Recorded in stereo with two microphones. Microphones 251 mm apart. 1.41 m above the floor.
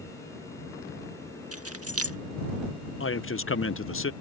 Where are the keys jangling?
65° right (ahead or behind).